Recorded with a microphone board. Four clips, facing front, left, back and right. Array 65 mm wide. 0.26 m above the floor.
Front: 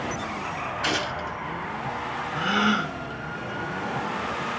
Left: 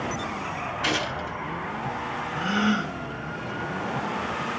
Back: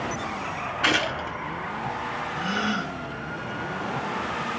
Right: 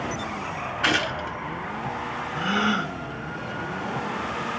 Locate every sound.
0.8 s a gunshot: 125° right, 2 m
2.3 s a gasp: 30° right, 1.0 m